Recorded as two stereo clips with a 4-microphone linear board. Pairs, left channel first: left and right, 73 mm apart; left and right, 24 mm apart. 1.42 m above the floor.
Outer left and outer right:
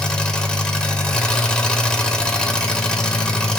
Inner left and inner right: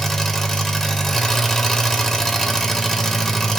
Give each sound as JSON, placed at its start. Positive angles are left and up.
{"t": 0.0, "sound": "an engine running", "side_deg": 10, "distance_m": 1.0}